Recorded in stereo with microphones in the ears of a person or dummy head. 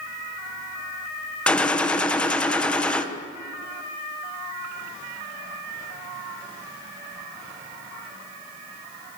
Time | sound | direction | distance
1.5 | a gunshot | 5° left (ahead or behind) | 1.6 m